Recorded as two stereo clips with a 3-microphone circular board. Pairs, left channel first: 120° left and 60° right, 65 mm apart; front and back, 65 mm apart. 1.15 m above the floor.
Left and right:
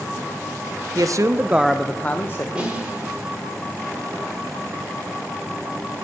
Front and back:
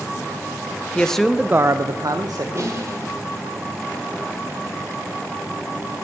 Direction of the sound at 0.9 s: 70° right.